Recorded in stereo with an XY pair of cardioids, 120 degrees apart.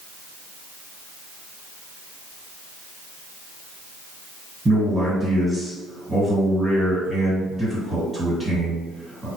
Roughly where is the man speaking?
Ahead.